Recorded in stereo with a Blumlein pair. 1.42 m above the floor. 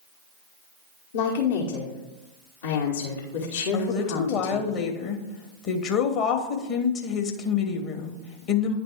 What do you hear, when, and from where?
1.1 s a woman speaking: 60° left, 1.4 m
3.7 s a woman speaking: 35° left, 1.2 m